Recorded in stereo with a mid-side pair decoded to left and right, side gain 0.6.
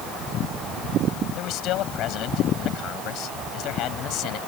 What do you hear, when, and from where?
1.4 s a man speaking: 65° left